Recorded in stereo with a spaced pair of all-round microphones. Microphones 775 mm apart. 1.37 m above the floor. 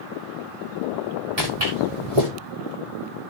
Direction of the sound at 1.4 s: 55° right (ahead or behind).